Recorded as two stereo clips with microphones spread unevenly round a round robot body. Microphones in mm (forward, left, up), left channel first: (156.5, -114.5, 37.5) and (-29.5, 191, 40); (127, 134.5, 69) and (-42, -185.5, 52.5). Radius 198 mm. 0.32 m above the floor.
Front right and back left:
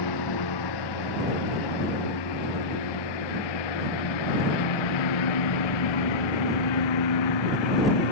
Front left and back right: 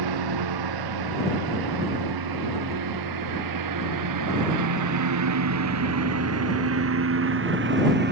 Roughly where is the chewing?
No chewing in this recording.